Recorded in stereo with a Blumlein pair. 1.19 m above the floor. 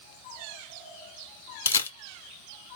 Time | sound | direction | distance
1.6 | a camera shutter | 70° left | 0.5 m